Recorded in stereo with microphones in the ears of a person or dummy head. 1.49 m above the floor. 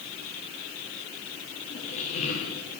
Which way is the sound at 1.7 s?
30° left (ahead or behind).